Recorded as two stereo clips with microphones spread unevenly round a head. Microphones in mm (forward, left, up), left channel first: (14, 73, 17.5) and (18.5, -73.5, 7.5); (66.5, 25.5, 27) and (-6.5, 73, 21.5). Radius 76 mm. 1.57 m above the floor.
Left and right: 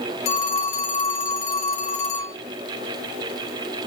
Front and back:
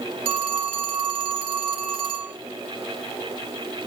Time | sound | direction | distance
0.2 | a phone ringing | 135° left | 1.6 m